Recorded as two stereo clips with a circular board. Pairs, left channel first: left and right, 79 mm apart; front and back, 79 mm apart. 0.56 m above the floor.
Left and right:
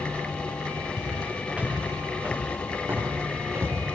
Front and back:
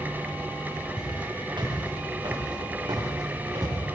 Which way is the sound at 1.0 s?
170° right.